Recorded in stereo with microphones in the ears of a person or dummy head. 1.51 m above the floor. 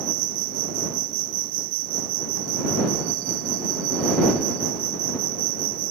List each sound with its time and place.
0.0 s an insect: 45° right (ahead or behind)